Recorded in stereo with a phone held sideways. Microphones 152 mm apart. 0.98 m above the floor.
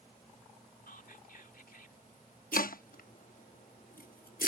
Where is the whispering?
75° left (ahead or behind).